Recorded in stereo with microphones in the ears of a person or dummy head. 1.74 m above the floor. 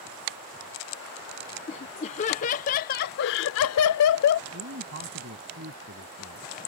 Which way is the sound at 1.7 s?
35° left (ahead or behind).